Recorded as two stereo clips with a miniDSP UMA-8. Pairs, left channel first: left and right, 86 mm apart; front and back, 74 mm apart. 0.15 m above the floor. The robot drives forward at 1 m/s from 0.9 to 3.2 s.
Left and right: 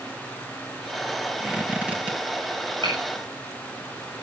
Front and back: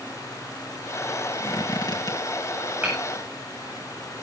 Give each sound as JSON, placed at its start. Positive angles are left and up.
{"t": 1.4, "sound": "a squeak", "azimuth_deg": -15, "distance_m": 4.0}
{"t": 2.8, "sound": "hammering", "azimuth_deg": -110, "distance_m": 9.5}